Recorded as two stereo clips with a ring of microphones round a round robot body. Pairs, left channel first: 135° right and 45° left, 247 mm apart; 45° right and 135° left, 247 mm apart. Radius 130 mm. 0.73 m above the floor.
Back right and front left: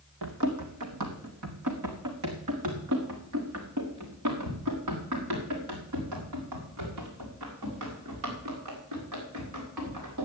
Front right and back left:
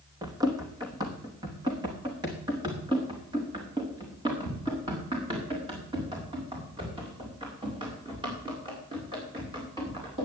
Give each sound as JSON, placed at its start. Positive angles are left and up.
{"t": 0.2, "sound": "running footsteps", "azimuth_deg": 60, "distance_m": 2.0}